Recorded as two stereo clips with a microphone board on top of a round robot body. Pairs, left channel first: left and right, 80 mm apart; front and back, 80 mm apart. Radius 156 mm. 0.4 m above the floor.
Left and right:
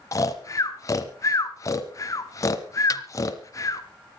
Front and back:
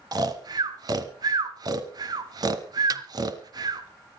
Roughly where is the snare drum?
Behind left.